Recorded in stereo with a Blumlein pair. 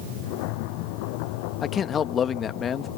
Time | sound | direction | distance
1.6 | a man speaking | 25° left | ?